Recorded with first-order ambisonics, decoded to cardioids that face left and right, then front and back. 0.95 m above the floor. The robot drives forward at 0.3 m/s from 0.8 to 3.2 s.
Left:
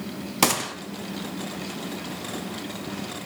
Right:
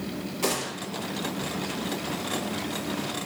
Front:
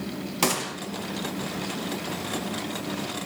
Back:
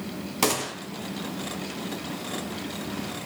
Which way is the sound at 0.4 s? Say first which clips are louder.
Left 6 dB, even; 90° left.